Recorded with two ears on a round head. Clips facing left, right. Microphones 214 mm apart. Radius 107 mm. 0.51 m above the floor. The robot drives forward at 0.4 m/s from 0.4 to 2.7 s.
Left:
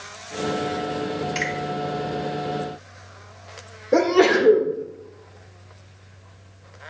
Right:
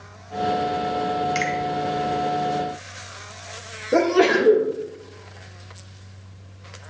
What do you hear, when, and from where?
1.4 s a finger snap: 25° right (ahead or behind), 2.5 m
3.9 s a sneeze: 10° right (ahead or behind), 1.5 m